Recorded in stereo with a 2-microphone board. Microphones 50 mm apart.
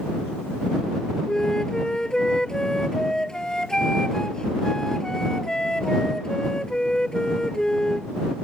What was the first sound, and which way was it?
A flute, 15° left (ahead or behind).